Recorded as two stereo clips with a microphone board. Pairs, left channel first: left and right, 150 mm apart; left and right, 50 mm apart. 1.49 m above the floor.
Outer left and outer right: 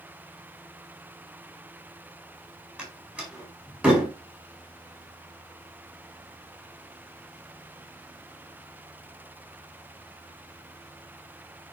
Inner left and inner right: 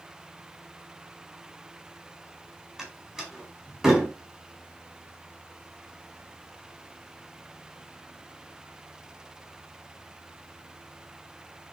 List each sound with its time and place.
2.8 s a door slam: 10° right (ahead or behind), 4.5 m